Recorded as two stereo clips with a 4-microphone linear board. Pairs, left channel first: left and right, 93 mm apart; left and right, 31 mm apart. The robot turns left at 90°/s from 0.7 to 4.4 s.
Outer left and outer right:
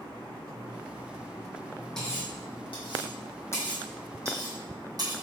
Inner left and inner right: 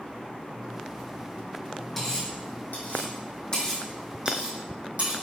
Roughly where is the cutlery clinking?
Centre.